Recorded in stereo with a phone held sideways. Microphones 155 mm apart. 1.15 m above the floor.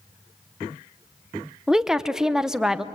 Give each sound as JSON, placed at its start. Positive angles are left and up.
{"t": 1.7, "sound": "a woman speaking", "side_deg": -5, "distance_m": 0.7}